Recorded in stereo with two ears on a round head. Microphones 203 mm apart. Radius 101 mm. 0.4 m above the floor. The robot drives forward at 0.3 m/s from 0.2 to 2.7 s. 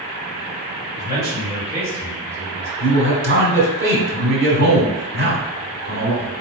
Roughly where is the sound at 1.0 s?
Centre.